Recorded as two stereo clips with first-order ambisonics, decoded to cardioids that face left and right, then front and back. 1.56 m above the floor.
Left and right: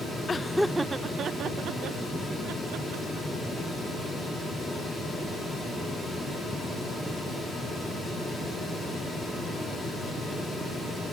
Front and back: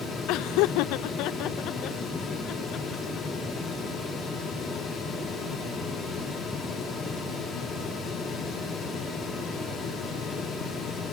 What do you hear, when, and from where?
0.3 s laughter: 20° left; by 3.5 s 60° right